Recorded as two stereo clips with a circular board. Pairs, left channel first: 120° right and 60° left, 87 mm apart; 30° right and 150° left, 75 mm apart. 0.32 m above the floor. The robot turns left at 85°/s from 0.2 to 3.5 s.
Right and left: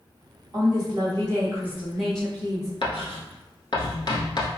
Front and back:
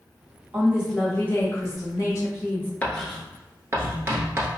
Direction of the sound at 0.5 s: 95° left.